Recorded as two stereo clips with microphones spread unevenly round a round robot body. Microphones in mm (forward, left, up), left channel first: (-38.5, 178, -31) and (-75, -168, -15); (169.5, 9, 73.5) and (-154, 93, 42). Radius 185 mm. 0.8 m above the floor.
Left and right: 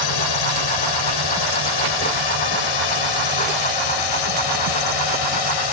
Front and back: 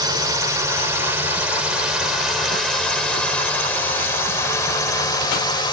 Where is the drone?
90° left; by 5.7 s 65° left.